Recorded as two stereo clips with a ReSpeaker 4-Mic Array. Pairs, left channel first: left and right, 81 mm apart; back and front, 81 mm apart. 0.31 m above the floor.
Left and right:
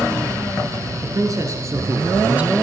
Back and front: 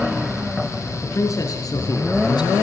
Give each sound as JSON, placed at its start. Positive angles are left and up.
{"t": 1.0, "sound": "a man speaking", "azimuth_deg": -130, "distance_m": 3.5}